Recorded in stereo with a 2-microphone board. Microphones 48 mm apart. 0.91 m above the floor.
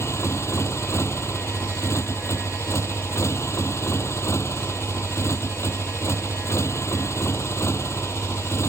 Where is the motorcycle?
70° left (ahead or behind).